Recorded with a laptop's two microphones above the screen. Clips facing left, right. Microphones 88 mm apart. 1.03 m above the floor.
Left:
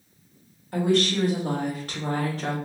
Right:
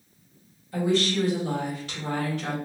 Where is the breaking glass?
I don't hear breaking glass.